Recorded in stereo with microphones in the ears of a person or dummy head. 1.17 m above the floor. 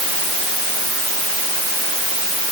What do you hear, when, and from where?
Only background noise.